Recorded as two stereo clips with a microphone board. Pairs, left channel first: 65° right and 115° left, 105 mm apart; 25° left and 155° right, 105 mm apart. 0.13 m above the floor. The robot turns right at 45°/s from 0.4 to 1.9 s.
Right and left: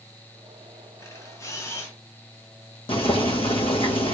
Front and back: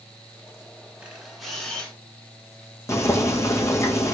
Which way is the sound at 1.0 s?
85° right.